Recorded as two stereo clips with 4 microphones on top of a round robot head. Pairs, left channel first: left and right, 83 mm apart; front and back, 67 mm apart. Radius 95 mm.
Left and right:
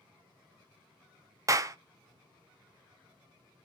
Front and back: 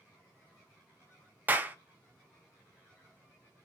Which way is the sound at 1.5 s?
125° right.